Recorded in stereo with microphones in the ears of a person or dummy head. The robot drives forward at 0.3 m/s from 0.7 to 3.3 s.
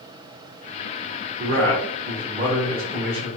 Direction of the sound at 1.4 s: 50° right (ahead or behind).